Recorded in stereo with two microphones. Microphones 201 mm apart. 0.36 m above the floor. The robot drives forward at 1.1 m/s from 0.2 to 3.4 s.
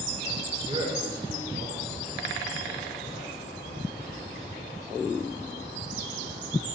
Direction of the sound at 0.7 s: 25° right (ahead or behind).